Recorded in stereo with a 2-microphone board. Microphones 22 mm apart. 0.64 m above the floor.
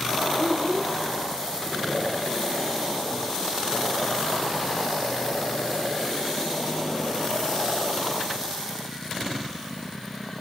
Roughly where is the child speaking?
Right.